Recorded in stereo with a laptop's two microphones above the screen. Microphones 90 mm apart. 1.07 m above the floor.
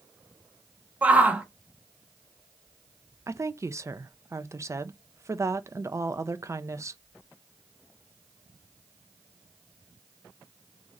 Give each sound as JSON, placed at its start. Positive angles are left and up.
{"t": 1.0, "sound": "a shout", "side_deg": -15, "distance_m": 0.6}
{"t": 3.3, "sound": "a woman speaking", "side_deg": -35, "distance_m": 0.5}